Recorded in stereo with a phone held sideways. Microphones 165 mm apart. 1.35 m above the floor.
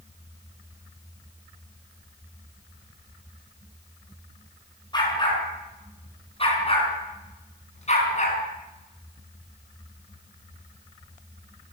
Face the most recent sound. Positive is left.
turn(degrees=45)  # may be behind; listen again after turning